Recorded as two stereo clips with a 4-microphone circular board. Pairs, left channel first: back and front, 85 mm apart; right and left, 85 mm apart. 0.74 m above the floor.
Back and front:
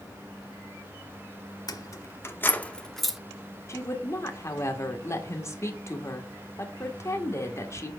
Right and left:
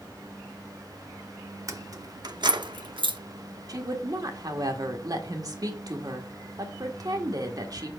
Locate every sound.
1.7 s keys jangling: 140° left, 0.9 m; by 3.2 s 85° left, 0.8 m
3.7 s a woman speaking: 130° left, 1.7 m